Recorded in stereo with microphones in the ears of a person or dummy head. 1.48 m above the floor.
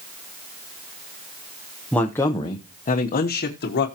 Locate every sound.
1.9 s a man speaking: 5° left (ahead or behind), 0.9 m; by 3.9 s 60° left (ahead or behind), 1.3 m